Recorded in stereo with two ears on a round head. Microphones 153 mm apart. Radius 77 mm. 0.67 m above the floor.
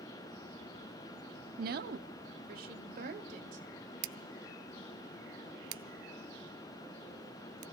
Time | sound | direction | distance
1.6 | a woman speaking | 55° right (ahead or behind) | 0.9 m
4.0 | scissors | 90° right | 0.5 m